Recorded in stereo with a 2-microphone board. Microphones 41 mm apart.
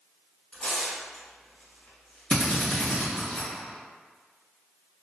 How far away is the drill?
About 1.3 m.